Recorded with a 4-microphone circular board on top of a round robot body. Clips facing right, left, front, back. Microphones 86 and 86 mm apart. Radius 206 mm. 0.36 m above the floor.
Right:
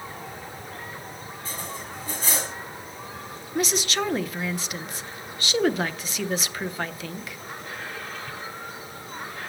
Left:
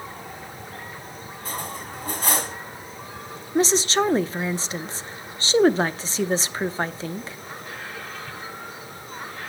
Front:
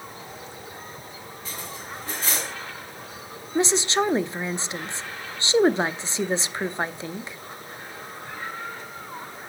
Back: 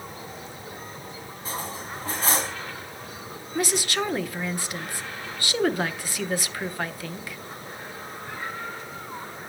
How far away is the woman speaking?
About 1.0 m.